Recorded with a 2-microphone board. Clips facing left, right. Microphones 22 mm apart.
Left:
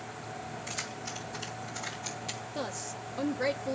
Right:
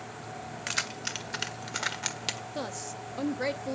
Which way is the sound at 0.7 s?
70° right (ahead or behind).